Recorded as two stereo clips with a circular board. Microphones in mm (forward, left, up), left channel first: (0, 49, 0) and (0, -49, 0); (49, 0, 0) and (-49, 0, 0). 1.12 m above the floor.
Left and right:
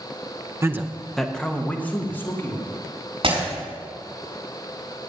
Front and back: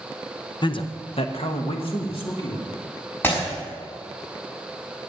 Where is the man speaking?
35° right, 0.8 m; by 2.7 s 25° left, 2.5 m.